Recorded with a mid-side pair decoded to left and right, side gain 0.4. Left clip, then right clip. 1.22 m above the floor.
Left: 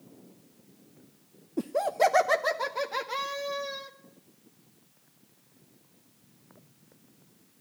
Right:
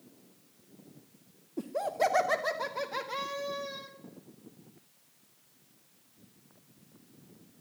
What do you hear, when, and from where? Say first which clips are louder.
1.6 s laughter: left 5 dB; 45° left, 0.7 m; by 3.9 s 25° left, 2.5 m